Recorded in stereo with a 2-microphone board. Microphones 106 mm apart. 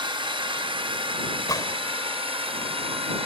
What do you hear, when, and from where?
0.0 s a drone: 55° right (ahead or behind); by 3.3 s 65° right (ahead or behind)
1.5 s a gunshot: 35° left (ahead or behind)